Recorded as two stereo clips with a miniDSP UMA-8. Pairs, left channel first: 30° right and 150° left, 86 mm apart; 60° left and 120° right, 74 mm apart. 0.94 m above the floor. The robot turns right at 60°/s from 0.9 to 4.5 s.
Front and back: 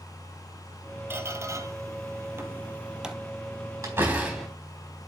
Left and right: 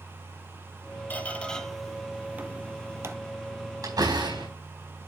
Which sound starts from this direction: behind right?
A door slam, at 3.8 s.